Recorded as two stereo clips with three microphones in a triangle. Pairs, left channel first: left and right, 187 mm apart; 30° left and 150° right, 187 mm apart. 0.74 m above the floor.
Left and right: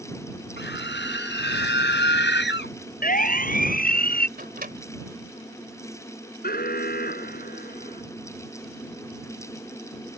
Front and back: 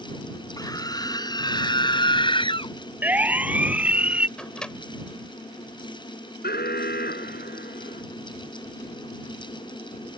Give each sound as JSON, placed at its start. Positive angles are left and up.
{"t": 0.6, "sound": "a scream", "azimuth_deg": 100}
{"t": 3.0, "sound": "a siren", "azimuth_deg": 130}
{"t": 4.4, "sound": "a microwave", "azimuth_deg": -55}
{"t": 6.4, "sound": "an alarm", "azimuth_deg": 60}